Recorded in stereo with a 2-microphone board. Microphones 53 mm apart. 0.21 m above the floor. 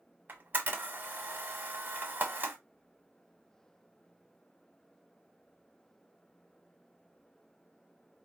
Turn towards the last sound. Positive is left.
turn(degrees=-35)  # may be behind; listen again after turning